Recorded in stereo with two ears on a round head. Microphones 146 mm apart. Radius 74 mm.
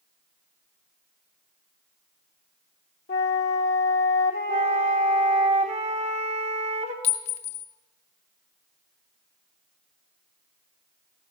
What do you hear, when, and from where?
3.1 s a flute: 65° left (ahead or behind), 0.9 m
4.5 s a flute: 45° right (ahead or behind), 1.0 m
7.0 s a clink: 40° left (ahead or behind), 0.6 m